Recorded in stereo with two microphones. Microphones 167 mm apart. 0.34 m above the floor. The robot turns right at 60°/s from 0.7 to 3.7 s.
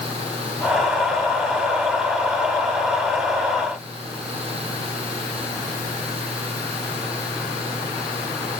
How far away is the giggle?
No giggle in this recording.